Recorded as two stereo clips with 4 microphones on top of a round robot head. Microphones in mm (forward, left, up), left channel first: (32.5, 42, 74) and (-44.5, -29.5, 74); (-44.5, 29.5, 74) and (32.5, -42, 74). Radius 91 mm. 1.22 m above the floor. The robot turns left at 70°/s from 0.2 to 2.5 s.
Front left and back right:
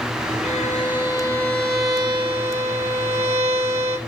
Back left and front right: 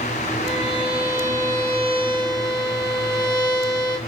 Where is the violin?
35° left, 1.5 m; by 4.0 s 110° right, 1.5 m.